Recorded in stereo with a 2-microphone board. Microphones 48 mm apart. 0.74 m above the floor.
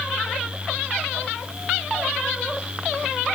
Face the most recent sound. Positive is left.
No sound to turn to.